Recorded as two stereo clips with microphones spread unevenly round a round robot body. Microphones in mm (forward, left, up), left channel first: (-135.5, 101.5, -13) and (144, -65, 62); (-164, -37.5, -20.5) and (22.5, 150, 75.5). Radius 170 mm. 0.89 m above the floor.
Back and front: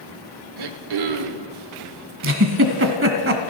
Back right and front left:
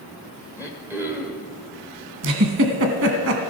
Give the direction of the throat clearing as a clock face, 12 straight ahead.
1 o'clock.